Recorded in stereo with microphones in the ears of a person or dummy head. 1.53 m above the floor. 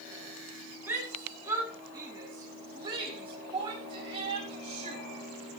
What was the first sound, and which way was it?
A shout, 15° right (ahead or behind).